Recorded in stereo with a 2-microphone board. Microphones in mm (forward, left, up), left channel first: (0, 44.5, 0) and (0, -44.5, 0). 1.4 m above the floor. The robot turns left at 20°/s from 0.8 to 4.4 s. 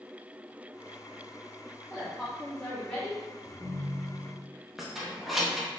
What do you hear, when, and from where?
1.9 s a woman speaking: 5° right (ahead or behind), 0.9 m; by 3.2 s 20° left (ahead or behind), 0.9 m
3.4 s a ringtone: 30° right (ahead or behind), 1.2 m; by 4.5 s 15° right (ahead or behind), 1.2 m
4.8 s keys jangling: centre (ahead or behind), 0.6 m